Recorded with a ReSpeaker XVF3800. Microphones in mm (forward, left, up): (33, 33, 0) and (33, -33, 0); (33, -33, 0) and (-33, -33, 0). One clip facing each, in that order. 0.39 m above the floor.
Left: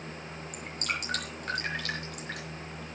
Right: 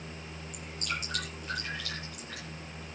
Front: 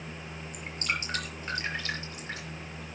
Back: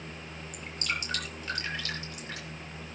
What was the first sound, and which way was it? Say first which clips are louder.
Dripping: left 2 dB, front 2 dB; 60° left.